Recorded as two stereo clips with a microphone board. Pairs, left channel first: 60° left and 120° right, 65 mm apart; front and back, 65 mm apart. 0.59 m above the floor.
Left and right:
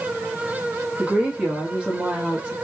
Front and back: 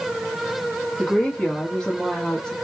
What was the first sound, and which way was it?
A woman speaking, 60° right.